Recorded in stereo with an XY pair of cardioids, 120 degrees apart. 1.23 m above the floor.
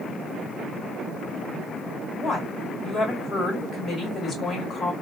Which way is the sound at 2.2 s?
35° left.